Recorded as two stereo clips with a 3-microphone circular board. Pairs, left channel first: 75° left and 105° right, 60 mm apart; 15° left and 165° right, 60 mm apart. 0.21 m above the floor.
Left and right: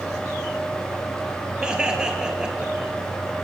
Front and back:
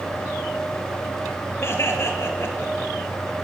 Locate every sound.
1.6 s laughter: 30° right, 4 m